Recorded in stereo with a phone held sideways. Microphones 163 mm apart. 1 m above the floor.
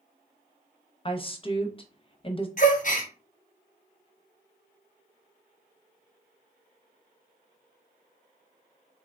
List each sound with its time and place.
1.1 s a woman speaking: 35° left (ahead or behind), 0.6 m
2.6 s a gasp: 50° left (ahead or behind), 0.7 m